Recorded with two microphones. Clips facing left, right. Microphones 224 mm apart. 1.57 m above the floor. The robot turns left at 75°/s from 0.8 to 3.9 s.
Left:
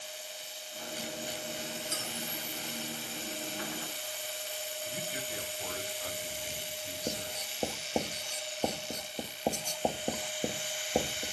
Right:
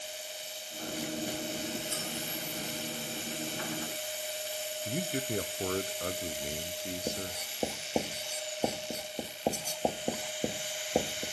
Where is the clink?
15° right (ahead or behind), 3 m; by 2.1 s centre (ahead or behind), 3 m.